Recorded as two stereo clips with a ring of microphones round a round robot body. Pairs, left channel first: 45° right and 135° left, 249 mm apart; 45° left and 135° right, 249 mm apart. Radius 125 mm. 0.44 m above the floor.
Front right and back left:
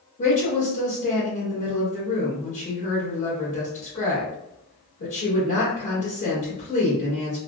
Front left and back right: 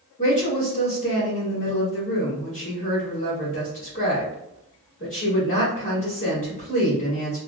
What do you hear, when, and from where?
0.2 s a woman speaking: 10° right, 1.8 m